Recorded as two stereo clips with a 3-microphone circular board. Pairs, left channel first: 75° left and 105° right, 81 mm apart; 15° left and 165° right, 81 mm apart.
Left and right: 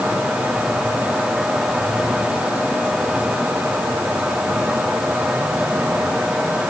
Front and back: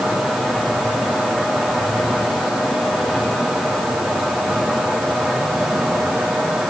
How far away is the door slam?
I don't hear a door slam.